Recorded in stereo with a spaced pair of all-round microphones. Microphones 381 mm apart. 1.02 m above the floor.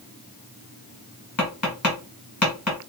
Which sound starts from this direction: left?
Tapping, at 1.4 s.